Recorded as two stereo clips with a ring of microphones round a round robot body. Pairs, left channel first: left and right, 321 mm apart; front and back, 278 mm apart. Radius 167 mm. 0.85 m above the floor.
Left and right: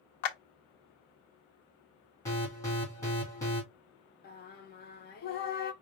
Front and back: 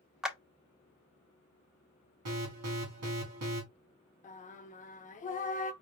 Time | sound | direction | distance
0.2 | a clap | 90° left | 0.9 m
2.2 | an alarm | 170° left | 2.5 m
4.2 | singing | 45° left | 0.5 m